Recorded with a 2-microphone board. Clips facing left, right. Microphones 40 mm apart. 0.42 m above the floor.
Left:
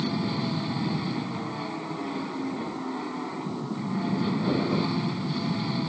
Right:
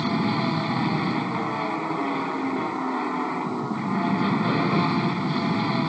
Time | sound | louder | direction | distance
0.0 | an aircraft | right 5 dB | 35° right (ahead or behind) | ?